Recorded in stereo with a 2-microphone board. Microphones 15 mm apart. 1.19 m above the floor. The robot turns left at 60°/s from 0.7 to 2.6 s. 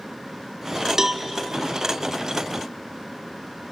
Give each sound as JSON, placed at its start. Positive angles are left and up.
{"t": 1.0, "sound": "a cowbell", "side_deg": -35, "distance_m": 1.5}